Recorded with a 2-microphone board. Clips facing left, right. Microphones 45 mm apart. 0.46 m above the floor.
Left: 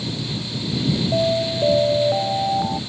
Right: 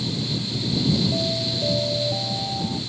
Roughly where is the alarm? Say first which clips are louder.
Left 6 dB; left.